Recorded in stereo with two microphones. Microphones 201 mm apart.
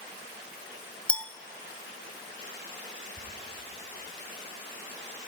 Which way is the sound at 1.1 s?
5° left (ahead or behind).